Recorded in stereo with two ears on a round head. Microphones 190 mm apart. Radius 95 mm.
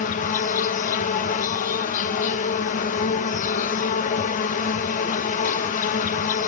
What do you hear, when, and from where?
0.0 s an insect: 35° left (ahead or behind), 0.9 m